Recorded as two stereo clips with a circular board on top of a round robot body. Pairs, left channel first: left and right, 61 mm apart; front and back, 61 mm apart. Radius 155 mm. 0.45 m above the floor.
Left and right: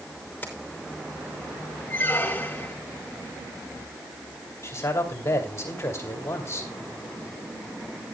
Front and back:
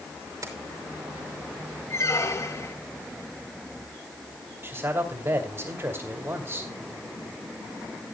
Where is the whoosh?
No whoosh in this recording.